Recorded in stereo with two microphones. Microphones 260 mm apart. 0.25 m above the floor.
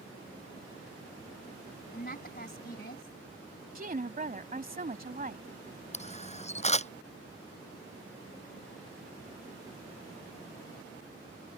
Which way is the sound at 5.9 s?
25° left (ahead or behind).